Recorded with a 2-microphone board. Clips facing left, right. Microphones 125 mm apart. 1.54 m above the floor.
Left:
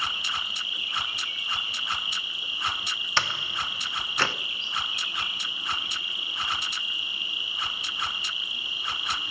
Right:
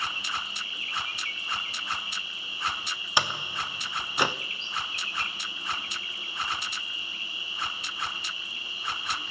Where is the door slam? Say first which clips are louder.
Right 1 dB; 15° right (ahead or behind), 0.8 m.